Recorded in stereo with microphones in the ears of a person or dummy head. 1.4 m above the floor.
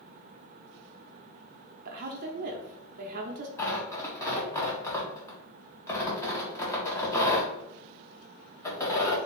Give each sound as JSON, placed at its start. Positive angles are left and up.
{"t": 1.9, "sound": "a woman speaking", "side_deg": -55, "distance_m": 0.6}
{"t": 3.6, "sound": "tearing paper", "side_deg": 15, "distance_m": 0.7}